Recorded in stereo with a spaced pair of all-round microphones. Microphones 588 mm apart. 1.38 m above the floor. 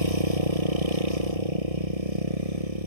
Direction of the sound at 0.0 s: 75° right (ahead or behind).